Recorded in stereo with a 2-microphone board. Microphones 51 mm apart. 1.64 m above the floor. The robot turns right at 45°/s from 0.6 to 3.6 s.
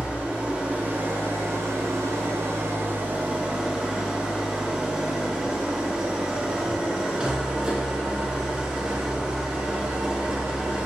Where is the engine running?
150° right, 0.7 m; by 10.9 s 15° right, 0.7 m.